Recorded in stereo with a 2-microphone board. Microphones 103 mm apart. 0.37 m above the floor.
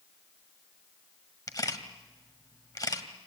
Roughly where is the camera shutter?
Left.